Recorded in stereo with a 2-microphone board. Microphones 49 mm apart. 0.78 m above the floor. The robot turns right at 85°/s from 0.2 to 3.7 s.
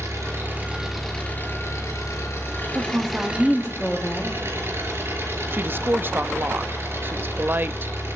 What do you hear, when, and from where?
0.0 s an engine running: 65° right, 5.5 m; by 8.2 s 130° right, 5.5 m
2.8 s a woman speaking: 70° right, 1.6 m; by 4.4 s 15° left, 1.6 m
5.5 s a woman speaking: 40° right (ahead or behind), 0.6 m